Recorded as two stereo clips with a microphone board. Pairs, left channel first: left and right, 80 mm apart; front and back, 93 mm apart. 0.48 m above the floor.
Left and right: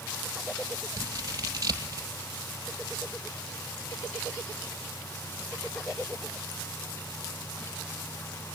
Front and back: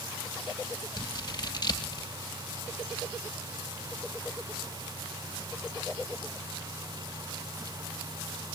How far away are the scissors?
About 2.5 m.